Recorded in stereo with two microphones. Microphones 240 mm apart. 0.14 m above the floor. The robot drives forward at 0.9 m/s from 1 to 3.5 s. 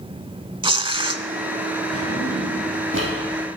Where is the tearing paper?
20° right (ahead or behind), 0.5 m.